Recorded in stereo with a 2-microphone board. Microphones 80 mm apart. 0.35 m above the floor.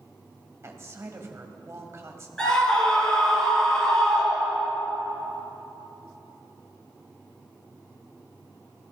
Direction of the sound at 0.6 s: 35° right (ahead or behind).